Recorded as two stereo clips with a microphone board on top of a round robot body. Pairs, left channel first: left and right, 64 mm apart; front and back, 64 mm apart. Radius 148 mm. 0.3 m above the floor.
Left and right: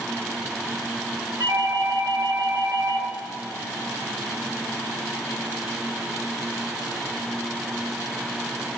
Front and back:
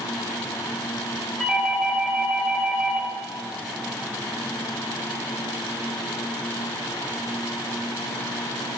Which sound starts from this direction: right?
A doorbell, at 1.4 s.